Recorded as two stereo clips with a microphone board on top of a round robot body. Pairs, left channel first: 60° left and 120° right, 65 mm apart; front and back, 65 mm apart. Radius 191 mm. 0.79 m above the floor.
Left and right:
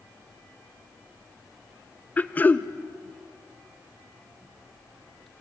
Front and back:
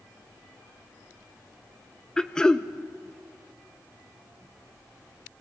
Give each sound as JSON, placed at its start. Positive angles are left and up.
{"t": 2.2, "sound": "throat clearing", "azimuth_deg": 65, "distance_m": 1.0}